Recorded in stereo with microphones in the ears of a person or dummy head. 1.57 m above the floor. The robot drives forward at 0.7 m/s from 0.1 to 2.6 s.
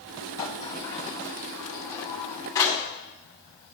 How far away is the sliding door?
About 1.9 m.